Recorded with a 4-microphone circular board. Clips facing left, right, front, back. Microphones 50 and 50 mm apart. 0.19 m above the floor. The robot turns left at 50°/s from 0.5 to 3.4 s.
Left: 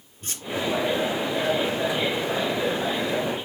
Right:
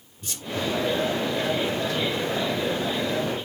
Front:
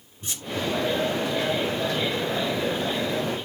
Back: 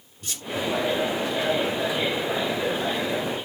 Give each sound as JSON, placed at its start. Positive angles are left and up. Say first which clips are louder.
{"t": 0.2, "sound": "a squeak", "louder": "even, even", "azimuth_deg": 55, "distance_m": 2.0}